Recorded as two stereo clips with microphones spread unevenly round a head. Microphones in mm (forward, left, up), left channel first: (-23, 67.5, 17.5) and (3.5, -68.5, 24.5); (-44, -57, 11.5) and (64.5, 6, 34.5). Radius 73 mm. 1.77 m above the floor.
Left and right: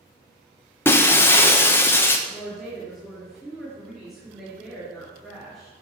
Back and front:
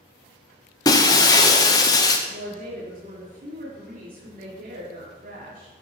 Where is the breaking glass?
155° left, 0.9 m.